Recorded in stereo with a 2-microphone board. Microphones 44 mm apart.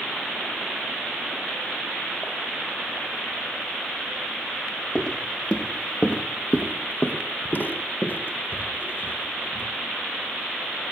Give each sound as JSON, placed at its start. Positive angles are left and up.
{"t": 5.0, "sound": "footsteps", "side_deg": 20, "distance_m": 1.8}